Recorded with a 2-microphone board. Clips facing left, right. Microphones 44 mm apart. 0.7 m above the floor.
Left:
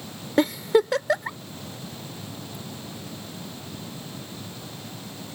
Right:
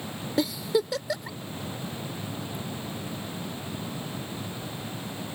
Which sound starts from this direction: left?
A giggle, at 0.4 s.